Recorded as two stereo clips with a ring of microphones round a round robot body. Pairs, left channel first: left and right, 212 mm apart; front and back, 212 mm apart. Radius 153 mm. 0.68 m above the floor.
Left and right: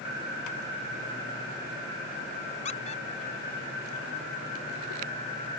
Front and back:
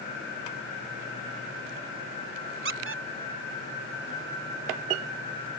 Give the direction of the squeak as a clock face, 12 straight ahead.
7 o'clock.